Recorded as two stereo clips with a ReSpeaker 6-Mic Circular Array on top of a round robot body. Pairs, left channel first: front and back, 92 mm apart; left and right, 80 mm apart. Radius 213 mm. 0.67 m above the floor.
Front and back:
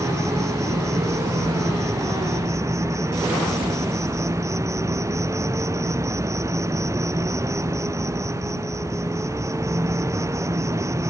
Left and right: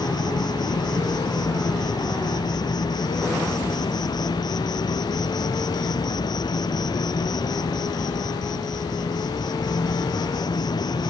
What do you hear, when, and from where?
0.0 s an insect: 120° left